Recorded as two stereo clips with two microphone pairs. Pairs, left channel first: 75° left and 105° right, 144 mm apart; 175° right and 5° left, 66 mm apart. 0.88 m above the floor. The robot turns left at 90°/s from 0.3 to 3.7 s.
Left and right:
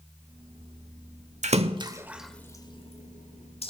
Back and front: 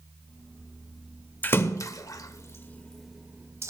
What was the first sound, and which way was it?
A splash, 120° right.